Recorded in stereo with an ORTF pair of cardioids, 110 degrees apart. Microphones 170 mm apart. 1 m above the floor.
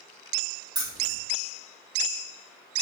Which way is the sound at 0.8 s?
25° right.